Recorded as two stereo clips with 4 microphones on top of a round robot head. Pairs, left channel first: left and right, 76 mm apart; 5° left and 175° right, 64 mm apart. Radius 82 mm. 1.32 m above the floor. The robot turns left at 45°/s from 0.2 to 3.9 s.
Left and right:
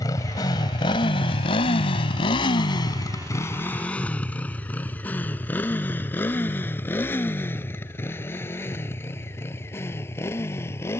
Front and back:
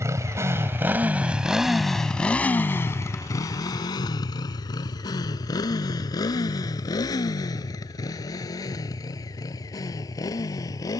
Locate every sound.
0.0 s a motorcycle: 145° left; by 11.0 s 35° left